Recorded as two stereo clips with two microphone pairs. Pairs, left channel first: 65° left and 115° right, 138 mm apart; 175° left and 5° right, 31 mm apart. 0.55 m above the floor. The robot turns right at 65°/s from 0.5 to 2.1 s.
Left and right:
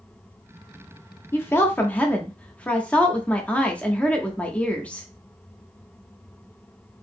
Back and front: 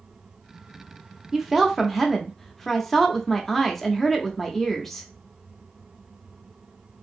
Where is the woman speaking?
60° left, 0.6 m; by 5.1 s 115° left, 0.6 m.